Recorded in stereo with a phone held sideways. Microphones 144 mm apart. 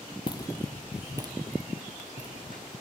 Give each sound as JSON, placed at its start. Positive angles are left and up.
{"t": 0.3, "sound": "footsteps", "side_deg": 35, "distance_m": 1.0}